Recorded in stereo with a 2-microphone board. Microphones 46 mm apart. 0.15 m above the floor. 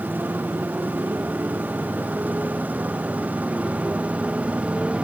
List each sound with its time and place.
0.0 s a motorcycle: 45° right (ahead or behind); by 5.0 s 30° right (ahead or behind)